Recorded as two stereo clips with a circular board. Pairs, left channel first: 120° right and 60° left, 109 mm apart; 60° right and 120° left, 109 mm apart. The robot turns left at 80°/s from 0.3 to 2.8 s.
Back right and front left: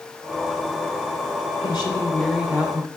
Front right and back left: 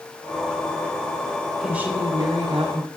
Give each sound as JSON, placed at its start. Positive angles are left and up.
{"t": 1.6, "sound": "a woman speaking", "azimuth_deg": -150, "distance_m": 2.0}